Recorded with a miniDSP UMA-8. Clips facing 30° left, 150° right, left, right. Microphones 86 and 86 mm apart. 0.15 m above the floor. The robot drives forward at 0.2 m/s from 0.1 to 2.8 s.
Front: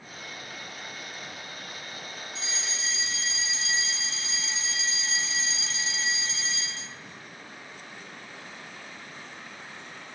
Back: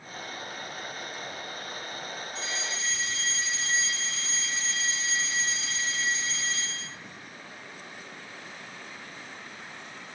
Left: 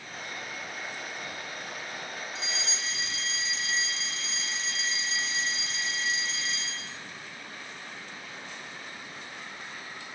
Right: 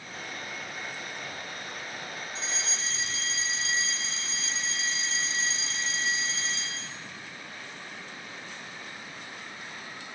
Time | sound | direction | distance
2.4 | a fire alarm | 130° right | 3 m